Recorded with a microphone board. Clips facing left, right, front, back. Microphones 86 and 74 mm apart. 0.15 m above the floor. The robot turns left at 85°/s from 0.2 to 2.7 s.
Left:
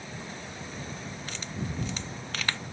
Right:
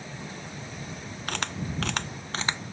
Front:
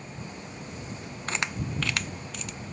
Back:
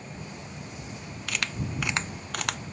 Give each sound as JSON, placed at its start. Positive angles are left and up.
{"t": 1.3, "sound": "a camera shutter", "azimuth_deg": -55}